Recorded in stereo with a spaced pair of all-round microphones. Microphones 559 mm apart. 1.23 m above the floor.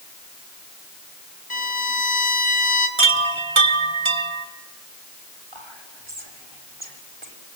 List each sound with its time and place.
1.5 s a violin: 60° left (ahead or behind), 2 m
3.0 s a chime: 55° right (ahead or behind), 1.4 m
5.5 s whispering: 55° right (ahead or behind), 3.5 m